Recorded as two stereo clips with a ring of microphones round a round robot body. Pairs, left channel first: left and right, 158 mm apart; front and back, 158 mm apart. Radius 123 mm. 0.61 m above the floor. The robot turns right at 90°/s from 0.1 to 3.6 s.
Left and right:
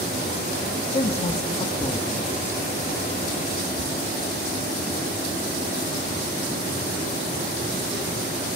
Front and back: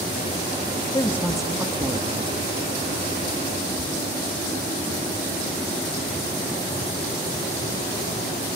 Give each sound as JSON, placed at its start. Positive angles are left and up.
{"t": 0.9, "sound": "a woman speaking", "azimuth_deg": 50, "distance_m": 1.1}